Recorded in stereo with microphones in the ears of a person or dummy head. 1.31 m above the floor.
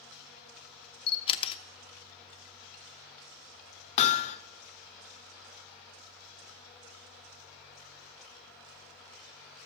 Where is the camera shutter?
35° left (ahead or behind), 0.8 m.